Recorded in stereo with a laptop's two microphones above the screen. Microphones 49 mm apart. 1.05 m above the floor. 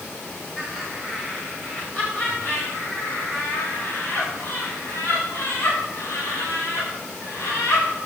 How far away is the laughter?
About 4.5 m.